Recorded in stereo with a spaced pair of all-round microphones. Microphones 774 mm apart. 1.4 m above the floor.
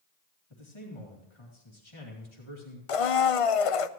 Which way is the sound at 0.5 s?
35° left (ahead or behind).